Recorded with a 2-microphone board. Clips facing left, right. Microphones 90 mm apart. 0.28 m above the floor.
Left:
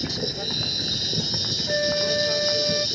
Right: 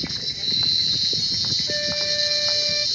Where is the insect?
55° left (ahead or behind).